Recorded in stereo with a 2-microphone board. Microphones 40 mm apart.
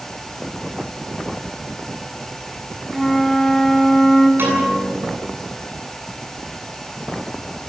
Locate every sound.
2.9 s a flute: 5° left (ahead or behind), 2 m
4.4 s a piano: 65° right (ahead or behind), 8.5 m